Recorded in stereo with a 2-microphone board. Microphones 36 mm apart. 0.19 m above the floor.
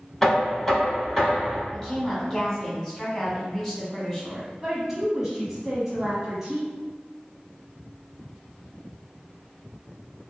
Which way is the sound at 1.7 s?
10° left (ahead or behind).